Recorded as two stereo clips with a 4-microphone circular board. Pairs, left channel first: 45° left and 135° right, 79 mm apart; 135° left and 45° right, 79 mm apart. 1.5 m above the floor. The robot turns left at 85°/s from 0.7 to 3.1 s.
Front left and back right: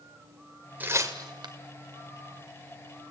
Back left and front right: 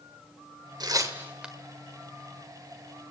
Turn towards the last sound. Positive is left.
turn(degrees=95)